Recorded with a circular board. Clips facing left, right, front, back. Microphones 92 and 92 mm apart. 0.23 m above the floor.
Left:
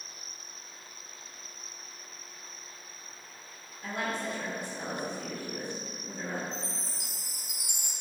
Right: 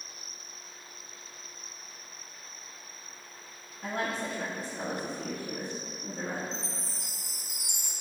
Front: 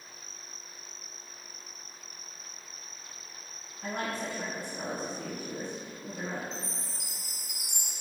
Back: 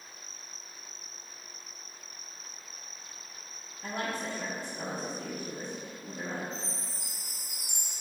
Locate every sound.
3.8 s a woman speaking: 45° right, 2 m
6.5 s a chime: 15° left, 2.5 m